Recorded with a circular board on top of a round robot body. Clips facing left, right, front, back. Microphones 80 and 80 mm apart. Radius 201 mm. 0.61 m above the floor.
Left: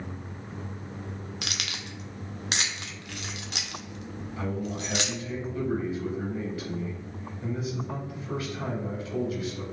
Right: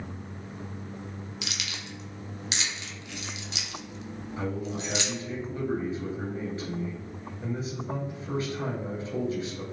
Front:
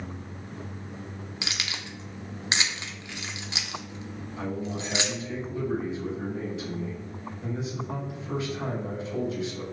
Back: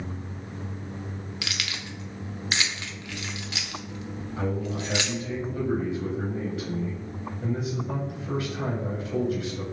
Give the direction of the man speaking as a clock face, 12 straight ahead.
5 o'clock.